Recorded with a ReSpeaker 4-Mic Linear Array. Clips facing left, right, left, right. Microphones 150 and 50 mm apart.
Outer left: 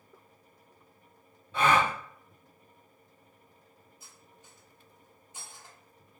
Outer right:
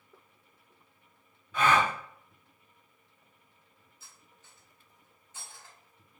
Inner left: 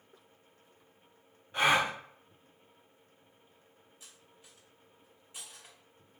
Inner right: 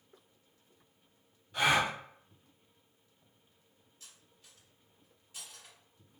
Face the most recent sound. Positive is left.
turn(degrees=15)  # may be behind; listen again after turning